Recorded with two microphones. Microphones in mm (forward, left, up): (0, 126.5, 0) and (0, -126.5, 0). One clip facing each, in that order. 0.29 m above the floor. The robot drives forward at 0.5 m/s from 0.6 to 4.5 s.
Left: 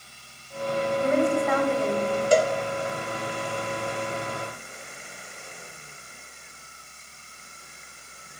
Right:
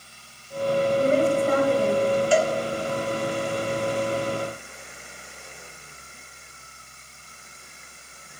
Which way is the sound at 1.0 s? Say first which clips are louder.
Left 1 dB; 30° right (ahead or behind).